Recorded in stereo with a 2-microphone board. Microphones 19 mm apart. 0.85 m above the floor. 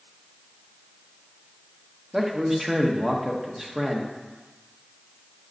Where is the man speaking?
25° right (ahead or behind), 0.9 m.